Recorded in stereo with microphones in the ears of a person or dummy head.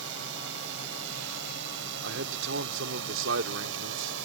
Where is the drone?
70° right (ahead or behind).